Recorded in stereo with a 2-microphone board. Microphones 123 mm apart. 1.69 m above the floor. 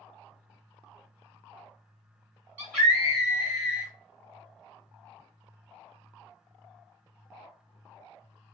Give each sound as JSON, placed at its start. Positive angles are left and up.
{"t": 2.6, "sound": "a scream", "side_deg": 15, "distance_m": 1.1}